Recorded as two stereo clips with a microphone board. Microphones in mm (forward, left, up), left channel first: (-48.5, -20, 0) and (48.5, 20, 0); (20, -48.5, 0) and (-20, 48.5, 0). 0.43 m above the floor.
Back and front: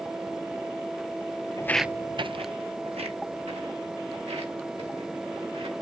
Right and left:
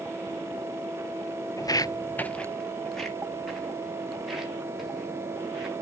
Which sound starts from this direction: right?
Footsteps, at 1.6 s.